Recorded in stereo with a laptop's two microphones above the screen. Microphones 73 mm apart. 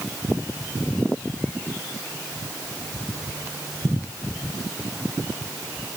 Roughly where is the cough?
No cough in this recording.